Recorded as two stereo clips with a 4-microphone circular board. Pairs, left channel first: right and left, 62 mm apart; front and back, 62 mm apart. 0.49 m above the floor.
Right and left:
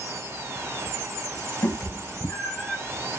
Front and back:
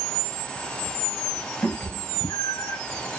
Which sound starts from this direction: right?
A cat meowing, at 1.6 s.